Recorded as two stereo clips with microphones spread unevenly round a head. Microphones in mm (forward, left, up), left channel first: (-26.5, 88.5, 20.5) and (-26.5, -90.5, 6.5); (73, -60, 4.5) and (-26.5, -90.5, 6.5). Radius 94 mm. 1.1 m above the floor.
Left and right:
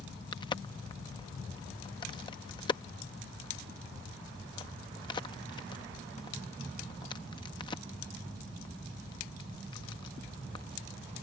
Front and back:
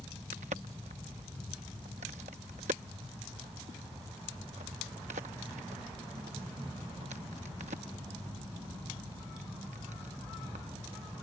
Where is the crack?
155° left.